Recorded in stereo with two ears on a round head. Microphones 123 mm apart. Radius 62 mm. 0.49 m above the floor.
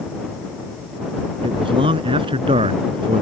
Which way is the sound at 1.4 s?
35° right (ahead or behind).